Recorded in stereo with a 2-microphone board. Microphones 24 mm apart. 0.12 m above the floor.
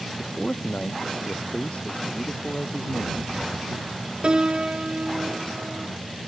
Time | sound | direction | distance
0.2 | a man speaking | 70° left (ahead or behind) | ?
2.8 | a rattle | 70° right (ahead or behind) | ?
4.2 | a piano | 45° right (ahead or behind) | ?